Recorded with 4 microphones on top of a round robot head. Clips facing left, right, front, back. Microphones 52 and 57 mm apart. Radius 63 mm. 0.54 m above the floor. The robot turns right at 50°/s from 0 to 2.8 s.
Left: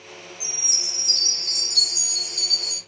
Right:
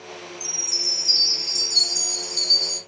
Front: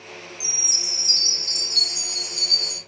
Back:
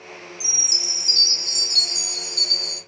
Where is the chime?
140° left, 0.5 m; by 2.8 s 100° right, 0.5 m.